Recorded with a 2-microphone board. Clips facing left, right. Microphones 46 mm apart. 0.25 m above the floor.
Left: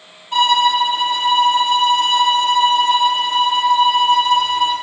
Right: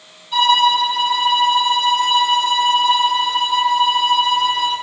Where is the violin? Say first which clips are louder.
Even; 70° left (ahead or behind), 6 m.